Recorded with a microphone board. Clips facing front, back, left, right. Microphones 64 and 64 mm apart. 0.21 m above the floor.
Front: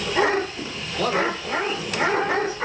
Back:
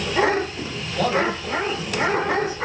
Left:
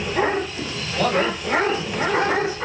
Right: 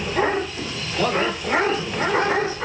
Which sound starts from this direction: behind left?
A man speaking, at 1.0 s.